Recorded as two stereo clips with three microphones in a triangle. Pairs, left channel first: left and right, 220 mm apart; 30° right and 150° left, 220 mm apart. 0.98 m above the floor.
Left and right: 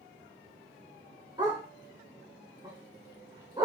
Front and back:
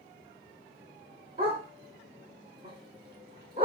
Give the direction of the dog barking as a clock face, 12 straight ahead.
5 o'clock.